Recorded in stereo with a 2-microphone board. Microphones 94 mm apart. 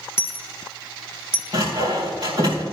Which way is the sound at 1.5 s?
50° right (ahead or behind).